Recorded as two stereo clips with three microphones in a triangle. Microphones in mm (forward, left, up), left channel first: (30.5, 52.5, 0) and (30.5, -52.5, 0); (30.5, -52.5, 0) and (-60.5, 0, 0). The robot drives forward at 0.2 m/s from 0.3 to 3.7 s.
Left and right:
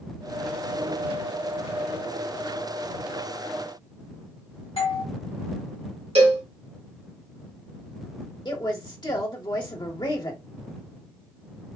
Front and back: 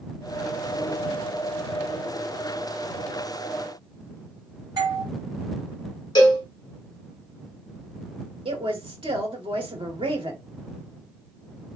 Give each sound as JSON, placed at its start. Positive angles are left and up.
{"t": 4.8, "sound": "a doorbell", "azimuth_deg": 100, "distance_m": 1.9}
{"t": 6.2, "sound": "a cowbell", "azimuth_deg": -75, "distance_m": 1.8}
{"t": 8.4, "sound": "a woman speaking", "azimuth_deg": 130, "distance_m": 1.7}